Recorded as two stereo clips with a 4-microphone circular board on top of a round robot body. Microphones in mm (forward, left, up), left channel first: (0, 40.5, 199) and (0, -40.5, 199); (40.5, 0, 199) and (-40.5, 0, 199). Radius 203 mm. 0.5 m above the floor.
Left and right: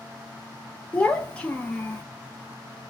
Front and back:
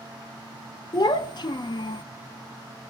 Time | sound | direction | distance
0.9 | a child speaking | 15° left | 0.6 m